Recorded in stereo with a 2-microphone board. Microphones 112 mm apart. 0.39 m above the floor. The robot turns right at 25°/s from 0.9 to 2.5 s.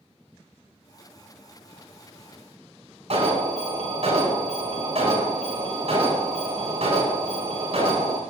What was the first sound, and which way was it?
An alarm, 60° right (ahead or behind).